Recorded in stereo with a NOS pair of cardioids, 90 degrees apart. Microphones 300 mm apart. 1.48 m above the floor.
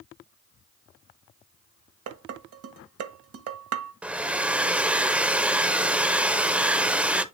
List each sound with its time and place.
2.1 s dishes clattering: 50° right, 1.4 m
4.0 s a hair dryer: 5° right, 0.9 m